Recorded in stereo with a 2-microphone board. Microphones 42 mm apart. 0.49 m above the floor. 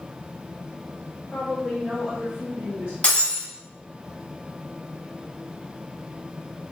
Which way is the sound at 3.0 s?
30° left (ahead or behind).